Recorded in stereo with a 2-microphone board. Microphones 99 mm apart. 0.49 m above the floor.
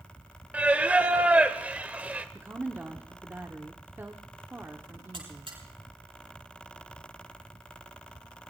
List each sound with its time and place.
0.5 s singing: 15° right (ahead or behind), 1.1 m
2.4 s a woman speaking: 25° right (ahead or behind), 1.3 m
5.1 s a buzzer: 65° right (ahead or behind), 8.5 m